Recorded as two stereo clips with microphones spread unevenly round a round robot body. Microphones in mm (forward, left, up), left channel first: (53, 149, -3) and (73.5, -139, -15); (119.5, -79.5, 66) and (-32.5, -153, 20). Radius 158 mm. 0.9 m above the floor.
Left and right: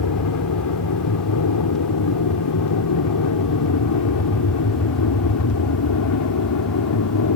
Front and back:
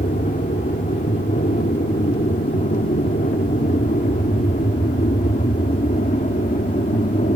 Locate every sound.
0.0 s an aircraft: 85° left